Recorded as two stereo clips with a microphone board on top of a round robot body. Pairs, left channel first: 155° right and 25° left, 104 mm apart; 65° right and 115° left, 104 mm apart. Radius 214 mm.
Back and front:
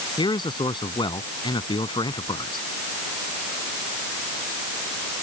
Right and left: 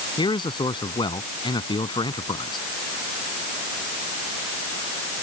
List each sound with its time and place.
0.2 s a man speaking: 110° right